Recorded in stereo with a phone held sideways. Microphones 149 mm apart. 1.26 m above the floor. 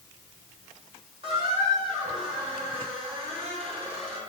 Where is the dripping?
I don't hear dripping.